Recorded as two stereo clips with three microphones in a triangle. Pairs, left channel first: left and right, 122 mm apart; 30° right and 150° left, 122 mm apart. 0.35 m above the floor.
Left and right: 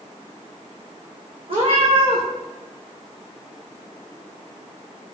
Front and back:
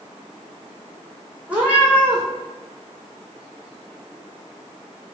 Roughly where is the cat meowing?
Behind right.